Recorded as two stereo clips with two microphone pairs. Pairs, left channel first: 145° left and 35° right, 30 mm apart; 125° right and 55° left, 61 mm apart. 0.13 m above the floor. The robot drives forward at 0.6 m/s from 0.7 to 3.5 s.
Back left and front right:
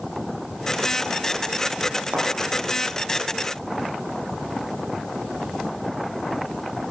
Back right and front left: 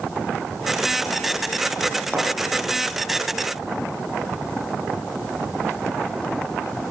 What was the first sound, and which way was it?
A thud, 20° right.